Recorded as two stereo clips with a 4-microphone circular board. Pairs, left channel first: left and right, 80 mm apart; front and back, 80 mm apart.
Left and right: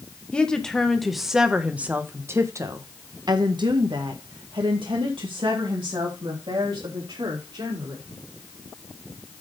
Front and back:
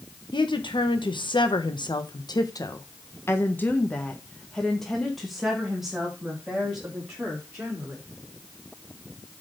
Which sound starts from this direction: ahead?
A woman speaking, at 0.3 s.